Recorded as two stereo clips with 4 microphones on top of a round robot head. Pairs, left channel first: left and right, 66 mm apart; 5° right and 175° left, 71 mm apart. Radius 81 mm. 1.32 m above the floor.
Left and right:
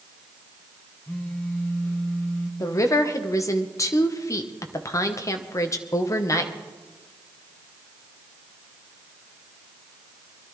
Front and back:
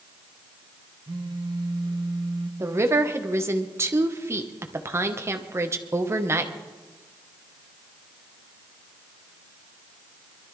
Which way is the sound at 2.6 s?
125° left.